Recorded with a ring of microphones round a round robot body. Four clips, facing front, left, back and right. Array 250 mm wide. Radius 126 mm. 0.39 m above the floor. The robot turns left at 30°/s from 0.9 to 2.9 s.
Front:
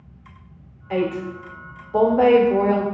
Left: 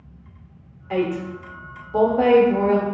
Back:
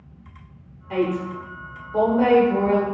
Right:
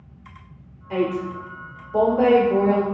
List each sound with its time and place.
0.9 s a woman speaking: 45° left, 0.9 m; by 2.9 s 15° right, 0.9 m